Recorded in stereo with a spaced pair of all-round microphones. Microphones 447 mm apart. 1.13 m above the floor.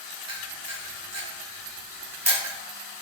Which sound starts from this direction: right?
A camera shutter, at 0.3 s.